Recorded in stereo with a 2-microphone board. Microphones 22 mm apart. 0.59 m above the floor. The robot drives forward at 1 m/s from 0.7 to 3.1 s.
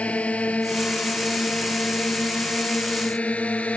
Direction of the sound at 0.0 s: 85° left.